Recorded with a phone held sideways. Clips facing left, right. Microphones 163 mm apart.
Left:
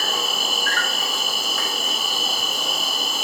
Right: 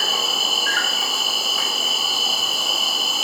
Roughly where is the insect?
Centre.